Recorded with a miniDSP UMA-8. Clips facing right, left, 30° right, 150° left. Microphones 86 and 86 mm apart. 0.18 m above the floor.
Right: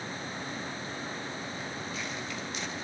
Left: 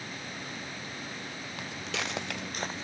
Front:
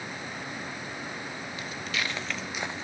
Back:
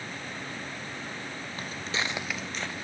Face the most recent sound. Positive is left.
turn(degrees=30)